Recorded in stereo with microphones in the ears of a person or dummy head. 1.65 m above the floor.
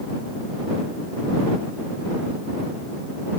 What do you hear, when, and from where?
Only background noise.